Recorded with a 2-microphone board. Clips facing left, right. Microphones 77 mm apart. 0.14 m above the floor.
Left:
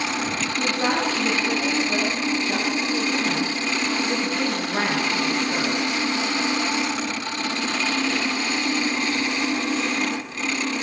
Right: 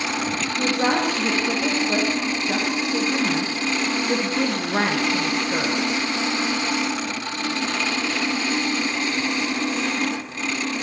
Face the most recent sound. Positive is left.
turn(degrees=-20)  # may be behind; listen again after turning